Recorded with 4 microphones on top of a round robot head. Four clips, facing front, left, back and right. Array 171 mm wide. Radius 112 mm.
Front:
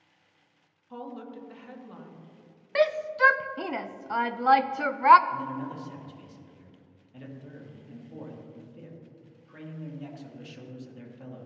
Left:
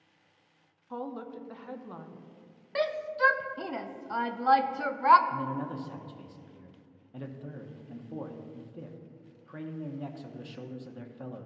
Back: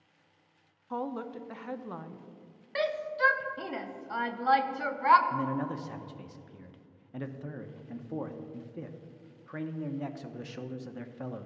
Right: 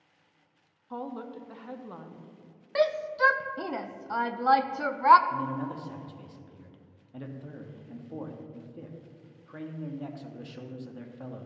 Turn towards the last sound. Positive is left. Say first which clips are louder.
# right 1 dB, back 2 dB
turn(degrees=175)